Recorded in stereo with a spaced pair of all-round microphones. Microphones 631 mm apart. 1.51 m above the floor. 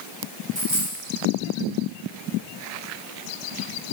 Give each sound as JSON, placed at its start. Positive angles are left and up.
{"t": 0.6, "sound": "a dropped coin", "side_deg": -65, "distance_m": 4.0}